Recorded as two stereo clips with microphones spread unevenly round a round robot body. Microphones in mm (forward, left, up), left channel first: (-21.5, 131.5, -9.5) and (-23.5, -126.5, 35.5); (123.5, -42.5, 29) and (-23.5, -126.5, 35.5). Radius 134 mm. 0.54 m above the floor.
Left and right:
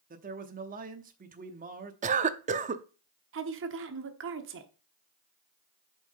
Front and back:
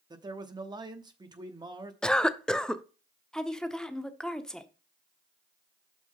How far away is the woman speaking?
About 1.2 m.